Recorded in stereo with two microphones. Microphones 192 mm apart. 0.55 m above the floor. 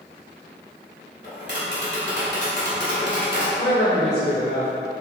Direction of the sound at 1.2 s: 65° left (ahead or behind).